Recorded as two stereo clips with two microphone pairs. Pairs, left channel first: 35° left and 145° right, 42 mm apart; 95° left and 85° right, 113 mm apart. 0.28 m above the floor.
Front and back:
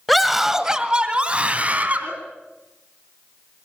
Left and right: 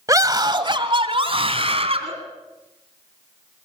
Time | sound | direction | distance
0.1 | a scream | 55° right | 1.7 m